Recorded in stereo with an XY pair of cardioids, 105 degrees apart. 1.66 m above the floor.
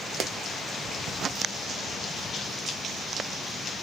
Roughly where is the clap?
Ahead right.